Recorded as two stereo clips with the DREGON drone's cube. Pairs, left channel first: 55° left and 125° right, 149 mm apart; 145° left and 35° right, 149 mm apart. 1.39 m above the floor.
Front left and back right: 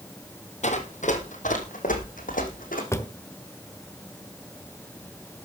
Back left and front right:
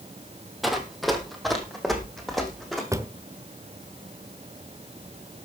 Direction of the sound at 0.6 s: 55° left.